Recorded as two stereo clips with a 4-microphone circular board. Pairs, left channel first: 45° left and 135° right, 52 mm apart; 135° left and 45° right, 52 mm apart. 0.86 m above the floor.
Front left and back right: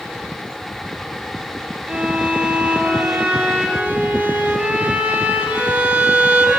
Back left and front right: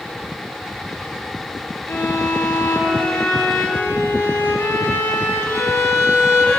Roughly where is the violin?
Behind.